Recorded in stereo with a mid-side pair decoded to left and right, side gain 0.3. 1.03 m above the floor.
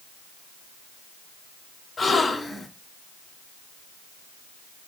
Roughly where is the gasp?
Ahead left.